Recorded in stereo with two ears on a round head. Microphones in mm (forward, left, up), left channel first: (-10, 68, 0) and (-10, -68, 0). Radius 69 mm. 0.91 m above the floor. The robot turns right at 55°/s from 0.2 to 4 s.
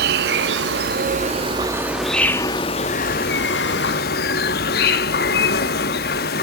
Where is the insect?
100° right, 0.8 m; by 6.4 s 105° left, 0.8 m.